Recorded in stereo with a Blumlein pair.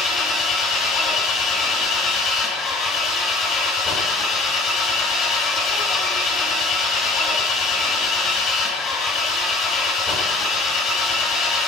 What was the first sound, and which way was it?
An engine running, 25° left.